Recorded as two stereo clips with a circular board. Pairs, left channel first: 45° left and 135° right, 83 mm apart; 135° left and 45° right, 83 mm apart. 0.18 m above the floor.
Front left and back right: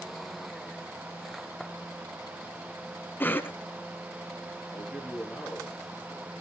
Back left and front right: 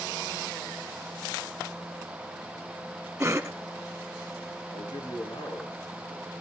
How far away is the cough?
About 1.1 m.